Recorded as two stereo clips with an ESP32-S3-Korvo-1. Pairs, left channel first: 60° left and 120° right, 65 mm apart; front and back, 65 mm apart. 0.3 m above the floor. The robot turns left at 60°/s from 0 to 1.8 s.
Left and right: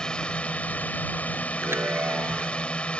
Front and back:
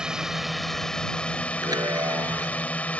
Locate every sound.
0.0 s a drone: 120° left; by 3.0 s 25° left
1.6 s a chime: 165° right; by 2.7 s 175° right